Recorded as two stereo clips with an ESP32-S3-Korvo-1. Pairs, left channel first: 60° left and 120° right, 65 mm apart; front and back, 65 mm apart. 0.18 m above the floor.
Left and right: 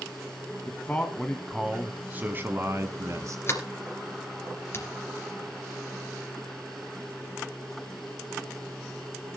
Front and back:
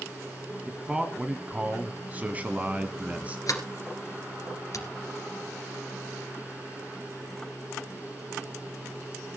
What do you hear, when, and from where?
0.7 s a man speaking: 105° left, 1.4 m; by 3.4 s 115° right, 1.8 m
3.5 s a sliding door: 20° left, 2 m